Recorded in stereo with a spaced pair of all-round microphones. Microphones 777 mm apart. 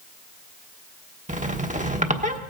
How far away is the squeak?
About 1.2 m.